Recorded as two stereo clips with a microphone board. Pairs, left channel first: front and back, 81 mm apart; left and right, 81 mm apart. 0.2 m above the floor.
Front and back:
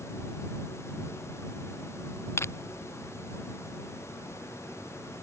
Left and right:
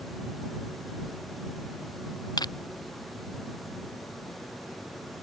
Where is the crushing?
60° left.